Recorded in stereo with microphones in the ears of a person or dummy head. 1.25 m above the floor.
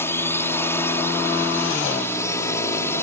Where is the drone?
10° left (ahead or behind).